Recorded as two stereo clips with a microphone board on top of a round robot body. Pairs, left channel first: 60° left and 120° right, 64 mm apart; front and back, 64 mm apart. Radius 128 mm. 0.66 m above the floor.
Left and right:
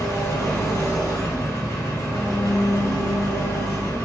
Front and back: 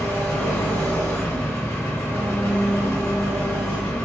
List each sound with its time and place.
0.0 s an engine running: 50° left, 1.7 m